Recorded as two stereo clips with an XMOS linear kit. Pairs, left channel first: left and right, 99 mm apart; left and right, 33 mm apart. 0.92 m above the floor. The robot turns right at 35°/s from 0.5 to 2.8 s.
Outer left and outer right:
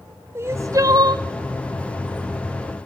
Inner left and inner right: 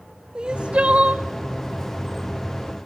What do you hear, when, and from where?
0.3 s crying: 25° right (ahead or behind), 1.4 m; by 1.2 s 50° right (ahead or behind), 1.4 m